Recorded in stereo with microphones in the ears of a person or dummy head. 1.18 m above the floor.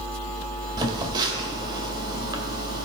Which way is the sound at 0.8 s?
25° right (ahead or behind).